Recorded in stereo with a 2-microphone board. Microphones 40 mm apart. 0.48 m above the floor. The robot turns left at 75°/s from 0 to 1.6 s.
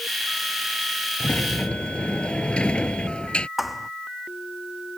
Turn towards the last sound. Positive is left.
turn(degrees=-5)  # may be behind; listen again after turning